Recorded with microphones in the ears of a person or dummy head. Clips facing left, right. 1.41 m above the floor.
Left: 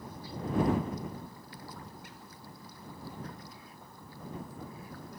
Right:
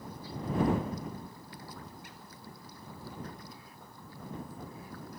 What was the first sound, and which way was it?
Only background noise.